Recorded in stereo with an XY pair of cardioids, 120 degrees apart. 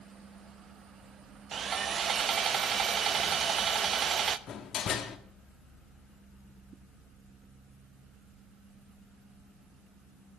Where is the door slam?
55° left, 1.6 m.